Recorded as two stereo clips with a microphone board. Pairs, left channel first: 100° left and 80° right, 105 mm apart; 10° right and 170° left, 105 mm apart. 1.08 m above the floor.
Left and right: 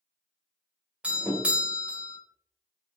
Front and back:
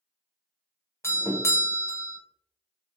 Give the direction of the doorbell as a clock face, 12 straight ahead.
1 o'clock.